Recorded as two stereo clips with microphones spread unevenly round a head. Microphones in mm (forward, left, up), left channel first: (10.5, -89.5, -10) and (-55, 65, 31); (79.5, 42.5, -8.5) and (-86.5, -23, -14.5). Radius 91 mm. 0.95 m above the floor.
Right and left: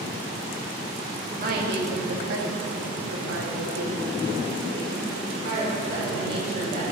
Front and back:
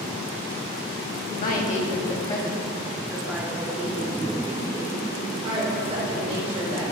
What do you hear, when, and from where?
1.4 s a woman speaking: 60° left, 1.9 m; by 6.8 s 145° left, 5.5 m